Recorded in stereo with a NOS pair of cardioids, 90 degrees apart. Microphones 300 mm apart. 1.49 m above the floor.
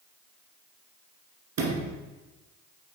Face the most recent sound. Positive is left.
turn(degrees=-60)